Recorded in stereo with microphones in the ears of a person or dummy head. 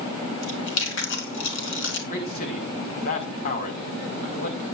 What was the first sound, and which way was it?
Chewing, 70° left (ahead or behind).